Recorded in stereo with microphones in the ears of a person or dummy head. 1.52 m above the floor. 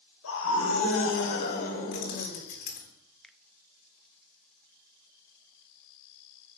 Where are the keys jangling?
50° left (ahead or behind), 3.5 m.